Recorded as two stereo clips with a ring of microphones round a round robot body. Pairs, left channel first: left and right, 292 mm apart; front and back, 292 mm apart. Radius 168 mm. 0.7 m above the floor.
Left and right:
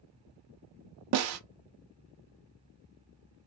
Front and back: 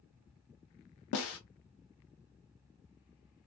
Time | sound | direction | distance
1.1 | a snare drum | 50° right | 0.5 m